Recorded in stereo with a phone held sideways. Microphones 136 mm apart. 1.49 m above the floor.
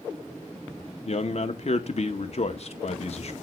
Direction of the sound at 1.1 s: 50° left (ahead or behind).